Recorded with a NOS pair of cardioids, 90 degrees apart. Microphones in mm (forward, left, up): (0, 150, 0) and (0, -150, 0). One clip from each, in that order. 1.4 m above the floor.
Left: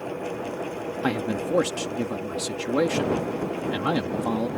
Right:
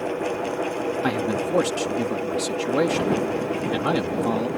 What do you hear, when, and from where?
0.0 s a fan: 40° right
1.0 s a man speaking: straight ahead